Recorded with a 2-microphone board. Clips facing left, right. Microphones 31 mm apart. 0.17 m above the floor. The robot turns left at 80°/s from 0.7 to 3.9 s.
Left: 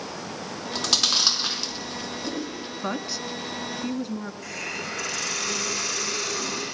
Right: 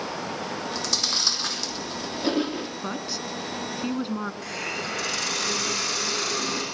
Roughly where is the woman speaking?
Centre.